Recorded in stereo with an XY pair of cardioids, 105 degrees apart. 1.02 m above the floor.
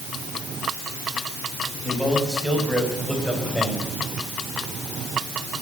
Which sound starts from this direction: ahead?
A man speaking, at 1.8 s.